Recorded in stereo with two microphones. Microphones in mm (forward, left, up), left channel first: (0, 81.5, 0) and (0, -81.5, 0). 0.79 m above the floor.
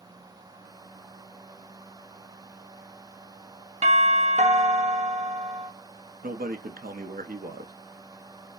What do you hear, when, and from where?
3.8 s a doorbell: 40° right (ahead or behind), 1.2 m
6.2 s a man speaking: 60° right (ahead or behind), 0.9 m